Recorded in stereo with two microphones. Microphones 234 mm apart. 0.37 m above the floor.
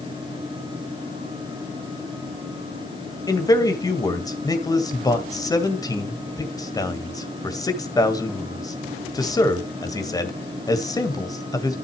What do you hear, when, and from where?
3.3 s a man speaking: 15° left (ahead or behind), 1.9 m